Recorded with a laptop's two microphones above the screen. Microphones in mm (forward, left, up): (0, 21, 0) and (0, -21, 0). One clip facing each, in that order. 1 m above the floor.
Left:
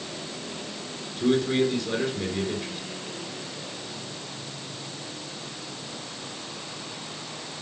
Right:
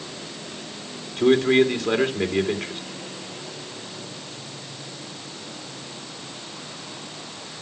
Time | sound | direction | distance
1.2 | a man speaking | 65° right (ahead or behind) | 2.5 m